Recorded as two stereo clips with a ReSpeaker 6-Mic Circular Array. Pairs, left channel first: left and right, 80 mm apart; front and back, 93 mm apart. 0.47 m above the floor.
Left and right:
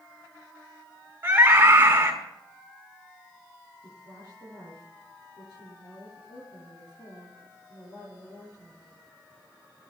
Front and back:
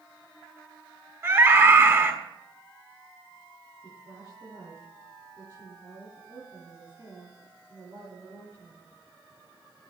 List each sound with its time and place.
1.2 s a scream: 135° right, 1.6 m
3.8 s a woman speaking: 130° left, 9.5 m